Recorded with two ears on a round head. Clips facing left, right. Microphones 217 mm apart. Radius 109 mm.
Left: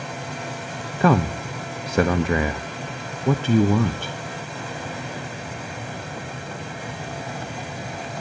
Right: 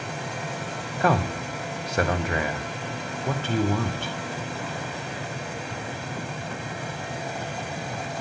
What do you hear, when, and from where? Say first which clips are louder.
1.0 s a man speaking: left 5 dB; 70° left (ahead or behind), 1.0 m